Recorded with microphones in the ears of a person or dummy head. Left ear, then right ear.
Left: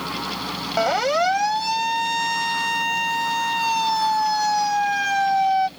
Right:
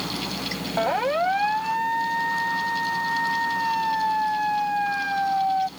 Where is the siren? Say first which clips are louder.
Left 3 dB; 85° left; by 5.7 s 65° left (ahead or behind).